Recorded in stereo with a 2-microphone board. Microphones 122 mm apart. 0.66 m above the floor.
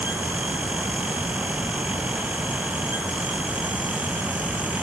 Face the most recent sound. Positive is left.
No sound to turn to.